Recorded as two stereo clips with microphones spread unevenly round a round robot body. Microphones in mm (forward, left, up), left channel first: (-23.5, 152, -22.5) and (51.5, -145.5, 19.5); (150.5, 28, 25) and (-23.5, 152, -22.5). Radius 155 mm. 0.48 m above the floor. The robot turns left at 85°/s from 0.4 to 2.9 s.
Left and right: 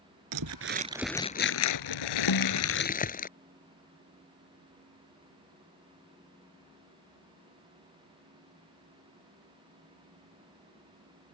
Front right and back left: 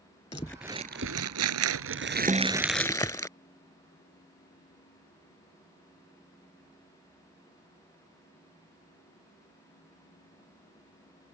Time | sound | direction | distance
0.3 | crumpling | 110° right | ?
2.3 | a snare drum | 75° left | ?